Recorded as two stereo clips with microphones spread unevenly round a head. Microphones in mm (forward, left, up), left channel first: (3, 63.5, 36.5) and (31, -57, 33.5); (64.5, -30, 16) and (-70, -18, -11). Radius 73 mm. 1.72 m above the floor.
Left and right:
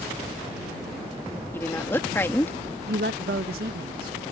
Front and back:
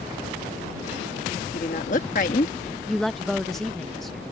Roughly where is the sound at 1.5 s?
Ahead left.